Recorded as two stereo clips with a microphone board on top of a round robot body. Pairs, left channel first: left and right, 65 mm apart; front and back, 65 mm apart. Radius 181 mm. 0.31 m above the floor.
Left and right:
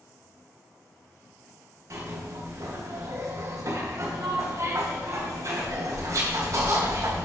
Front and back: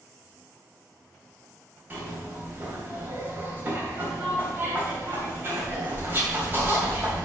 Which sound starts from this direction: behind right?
A zipper, at 1.9 s.